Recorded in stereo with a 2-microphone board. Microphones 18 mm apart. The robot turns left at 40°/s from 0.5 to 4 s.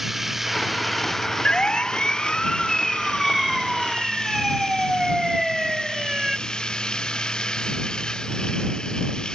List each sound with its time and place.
0.0 s running water: 165° right; by 9.3 s 55° left
1.4 s a siren: 80° left; by 6.4 s 20° right (ahead or behind)